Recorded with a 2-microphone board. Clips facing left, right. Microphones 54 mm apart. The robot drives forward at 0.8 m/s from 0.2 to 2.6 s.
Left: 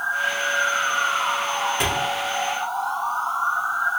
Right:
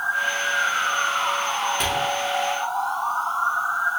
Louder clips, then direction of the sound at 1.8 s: Left 1 dB; 10° left (ahead or behind).